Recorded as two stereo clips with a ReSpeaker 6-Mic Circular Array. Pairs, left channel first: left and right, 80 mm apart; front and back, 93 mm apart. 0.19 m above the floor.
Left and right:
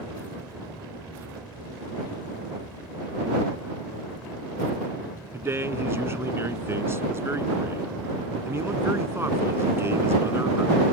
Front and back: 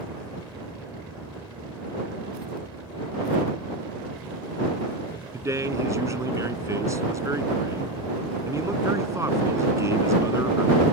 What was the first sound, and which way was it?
A man speaking, 135° right.